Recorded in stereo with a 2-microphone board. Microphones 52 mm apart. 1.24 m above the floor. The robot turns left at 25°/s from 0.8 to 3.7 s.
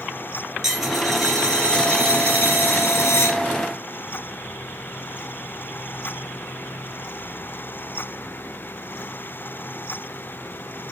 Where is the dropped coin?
175° right, 4 m; by 3.4 s 120° left, 4 m.